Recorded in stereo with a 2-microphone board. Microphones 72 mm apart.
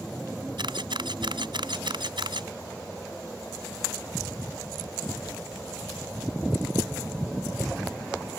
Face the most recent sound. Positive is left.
turn(degrees=-80)